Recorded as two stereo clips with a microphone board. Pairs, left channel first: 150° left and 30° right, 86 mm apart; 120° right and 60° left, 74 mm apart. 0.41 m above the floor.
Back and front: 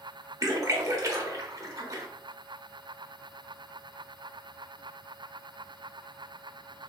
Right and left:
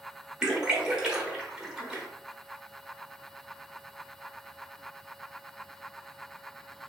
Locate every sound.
0.4 s a splash: 15° right, 0.9 m